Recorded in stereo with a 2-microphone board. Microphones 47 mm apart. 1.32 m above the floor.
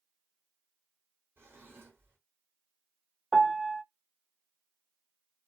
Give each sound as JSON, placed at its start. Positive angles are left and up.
{"t": 1.4, "sound": "a drawer", "side_deg": -65, "distance_m": 1.8}
{"t": 3.3, "sound": "a piano", "side_deg": -10, "distance_m": 0.6}